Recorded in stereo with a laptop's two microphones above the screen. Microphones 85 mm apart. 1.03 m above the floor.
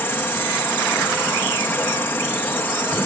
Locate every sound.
0.0 s an insect: 25° left (ahead or behind)